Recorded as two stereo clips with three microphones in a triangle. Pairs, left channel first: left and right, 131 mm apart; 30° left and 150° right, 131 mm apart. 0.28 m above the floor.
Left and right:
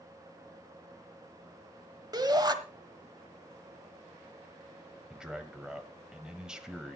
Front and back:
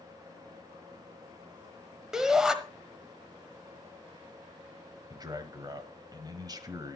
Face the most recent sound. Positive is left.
turn(degrees=-170)